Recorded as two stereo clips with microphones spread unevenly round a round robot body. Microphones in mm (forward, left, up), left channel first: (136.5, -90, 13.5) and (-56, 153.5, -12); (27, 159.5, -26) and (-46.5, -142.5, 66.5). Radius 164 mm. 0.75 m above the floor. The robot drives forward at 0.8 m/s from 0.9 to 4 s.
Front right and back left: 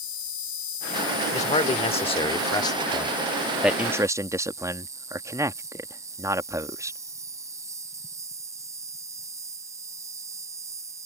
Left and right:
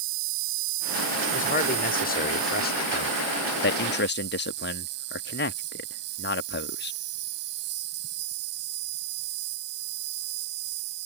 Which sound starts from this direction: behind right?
An insect, at 0.0 s.